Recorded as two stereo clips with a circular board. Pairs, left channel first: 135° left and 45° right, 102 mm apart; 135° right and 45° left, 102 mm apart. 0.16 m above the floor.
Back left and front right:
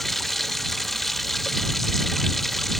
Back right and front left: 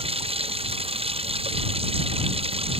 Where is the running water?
45° left.